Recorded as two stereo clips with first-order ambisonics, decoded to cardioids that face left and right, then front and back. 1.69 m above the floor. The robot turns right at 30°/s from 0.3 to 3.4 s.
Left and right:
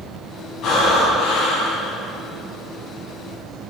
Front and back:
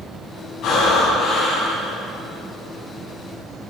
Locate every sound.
0.6 s breathing: 50° left, 4 m; by 1.9 s 90° left, 4 m